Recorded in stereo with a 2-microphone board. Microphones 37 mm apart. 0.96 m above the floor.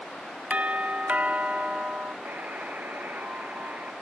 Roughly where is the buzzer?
Right.